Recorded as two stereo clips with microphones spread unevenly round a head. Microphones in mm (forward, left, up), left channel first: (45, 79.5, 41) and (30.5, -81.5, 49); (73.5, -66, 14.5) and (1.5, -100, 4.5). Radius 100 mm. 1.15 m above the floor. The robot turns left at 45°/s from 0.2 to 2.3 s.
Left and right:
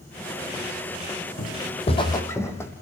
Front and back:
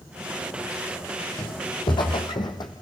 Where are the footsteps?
55° left, 2.5 m; by 2.7 s 10° left, 3.5 m.